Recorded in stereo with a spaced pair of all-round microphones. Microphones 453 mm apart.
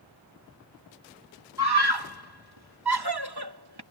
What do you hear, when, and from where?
1.6 s a scream: 55° right (ahead or behind)